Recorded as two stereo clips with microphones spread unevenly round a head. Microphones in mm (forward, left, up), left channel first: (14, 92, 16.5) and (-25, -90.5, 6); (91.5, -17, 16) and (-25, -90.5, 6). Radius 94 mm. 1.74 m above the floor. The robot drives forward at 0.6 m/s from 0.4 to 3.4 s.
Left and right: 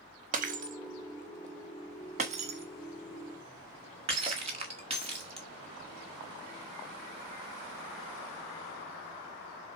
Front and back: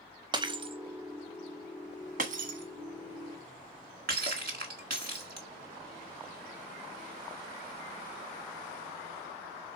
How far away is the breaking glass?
About 1.3 m.